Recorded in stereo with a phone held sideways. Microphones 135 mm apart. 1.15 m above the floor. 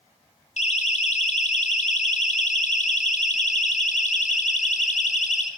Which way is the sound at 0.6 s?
70° left (ahead or behind).